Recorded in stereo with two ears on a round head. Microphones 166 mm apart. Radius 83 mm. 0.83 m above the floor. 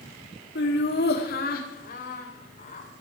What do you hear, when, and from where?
0.6 s laughter: 65° left (ahead or behind), 1.5 m; by 2.9 s 40° left (ahead or behind), 3.5 m